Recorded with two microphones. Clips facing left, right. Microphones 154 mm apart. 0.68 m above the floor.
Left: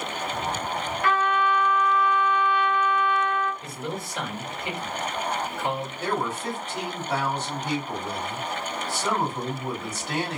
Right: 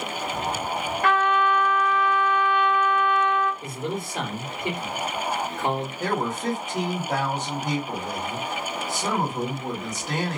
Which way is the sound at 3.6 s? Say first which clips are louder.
Right 3 dB; 50° right (ahead or behind).